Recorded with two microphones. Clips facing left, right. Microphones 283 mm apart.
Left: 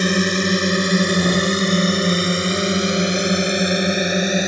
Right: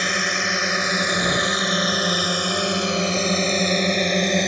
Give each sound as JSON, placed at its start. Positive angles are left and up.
{"t": 0.0, "sound": "a drone", "side_deg": 45}